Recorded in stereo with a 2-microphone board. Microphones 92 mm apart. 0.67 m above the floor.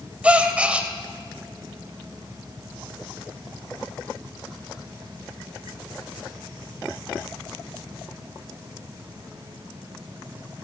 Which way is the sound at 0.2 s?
15° right (ahead or behind).